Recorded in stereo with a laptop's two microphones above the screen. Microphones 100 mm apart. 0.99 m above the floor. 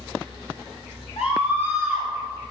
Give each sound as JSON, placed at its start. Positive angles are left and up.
{"t": 1.2, "sound": "a scream", "side_deg": 80, "distance_m": 5.5}